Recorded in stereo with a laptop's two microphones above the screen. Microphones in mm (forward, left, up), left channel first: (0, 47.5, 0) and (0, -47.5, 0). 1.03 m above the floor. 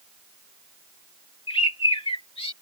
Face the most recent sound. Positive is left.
turn(degrees=75)  # may be behind; listen again after turning